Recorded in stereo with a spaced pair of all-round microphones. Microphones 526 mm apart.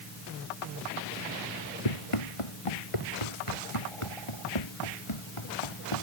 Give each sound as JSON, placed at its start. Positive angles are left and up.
{"t": 1.9, "sound": "running footsteps", "side_deg": 80}